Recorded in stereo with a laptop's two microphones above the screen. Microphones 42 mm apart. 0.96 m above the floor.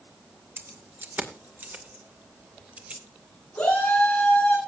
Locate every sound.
0.6 s keys jangling: 60° right (ahead or behind), 2 m; by 3.0 s 35° right (ahead or behind), 3 m
3.5 s a shout: 25° left (ahead or behind), 9.5 m